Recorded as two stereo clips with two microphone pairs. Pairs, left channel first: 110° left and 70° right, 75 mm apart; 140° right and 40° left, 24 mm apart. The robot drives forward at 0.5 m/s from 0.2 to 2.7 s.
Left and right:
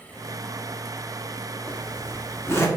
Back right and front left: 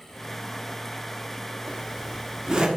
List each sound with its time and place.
1.7 s a zipper: 65° left, 2 m; by 2.7 s 80° left, 1.9 m